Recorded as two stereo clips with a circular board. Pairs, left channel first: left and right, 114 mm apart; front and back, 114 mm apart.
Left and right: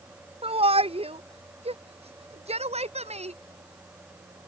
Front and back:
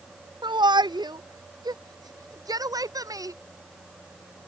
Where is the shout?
130° right; by 3.4 s 120° right.